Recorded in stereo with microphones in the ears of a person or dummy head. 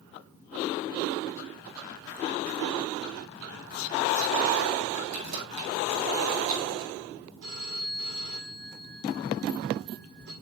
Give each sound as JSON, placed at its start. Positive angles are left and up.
{"t": 5.1, "sound": "keys jangling", "side_deg": -85, "distance_m": 8.0}
{"t": 7.4, "sound": "a phone ringing", "side_deg": -80, "distance_m": 8.5}